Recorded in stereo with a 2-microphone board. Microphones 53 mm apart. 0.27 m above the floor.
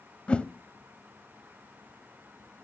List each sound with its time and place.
0.3 s a whoosh: 20° left (ahead or behind), 1.1 m